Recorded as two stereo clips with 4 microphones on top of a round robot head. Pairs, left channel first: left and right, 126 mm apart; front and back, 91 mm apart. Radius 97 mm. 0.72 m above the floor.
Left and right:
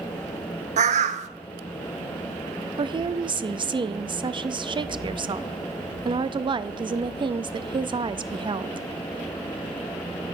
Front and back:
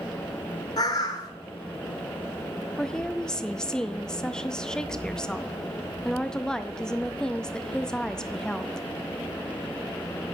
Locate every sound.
0.8 s a bird: 60° right, 0.8 m
2.8 s a woman speaking: 75° right, 0.7 m